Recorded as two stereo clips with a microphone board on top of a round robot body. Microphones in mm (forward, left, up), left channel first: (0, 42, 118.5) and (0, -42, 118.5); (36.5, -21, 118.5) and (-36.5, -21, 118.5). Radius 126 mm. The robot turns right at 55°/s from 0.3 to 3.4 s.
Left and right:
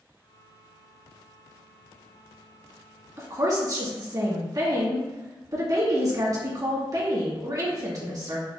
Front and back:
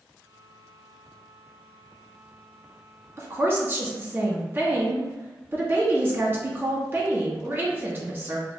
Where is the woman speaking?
140° right, 1.4 m; by 8.5 s 125° right, 1.4 m.